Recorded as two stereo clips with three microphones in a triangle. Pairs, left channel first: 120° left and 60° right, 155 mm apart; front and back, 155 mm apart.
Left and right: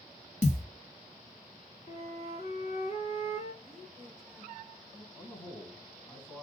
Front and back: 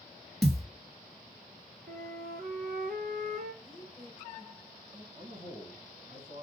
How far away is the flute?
About 1.1 m.